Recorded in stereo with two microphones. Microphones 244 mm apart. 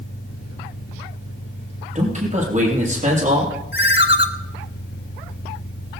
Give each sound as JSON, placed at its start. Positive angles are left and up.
{"t": 0.0, "sound": "an engine running", "side_deg": 75, "distance_m": 5.5}
{"t": 1.9, "sound": "a man speaking", "side_deg": -30, "distance_m": 6.5}
{"t": 3.7, "sound": "a ringtone", "side_deg": 45, "distance_m": 1.3}